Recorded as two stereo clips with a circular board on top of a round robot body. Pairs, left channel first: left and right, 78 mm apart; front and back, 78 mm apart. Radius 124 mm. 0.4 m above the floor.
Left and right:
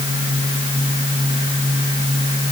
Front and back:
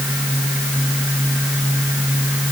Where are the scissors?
No scissors in this recording.